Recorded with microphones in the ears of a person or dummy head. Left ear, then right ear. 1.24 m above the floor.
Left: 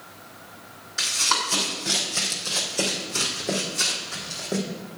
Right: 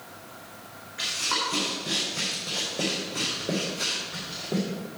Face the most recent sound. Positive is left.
turn(degrees=75)  # may be behind; listen again after turning